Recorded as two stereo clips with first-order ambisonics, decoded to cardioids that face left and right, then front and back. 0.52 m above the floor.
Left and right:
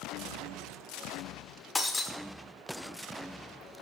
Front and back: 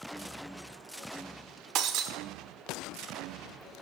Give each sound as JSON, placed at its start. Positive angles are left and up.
{"t": 1.8, "sound": "breaking glass", "azimuth_deg": 165, "distance_m": 0.9}